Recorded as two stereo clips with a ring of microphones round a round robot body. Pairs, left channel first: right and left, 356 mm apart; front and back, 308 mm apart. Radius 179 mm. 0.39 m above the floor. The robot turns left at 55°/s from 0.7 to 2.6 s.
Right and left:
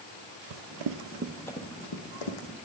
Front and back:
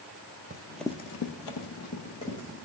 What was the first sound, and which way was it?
Running footsteps, 115° left.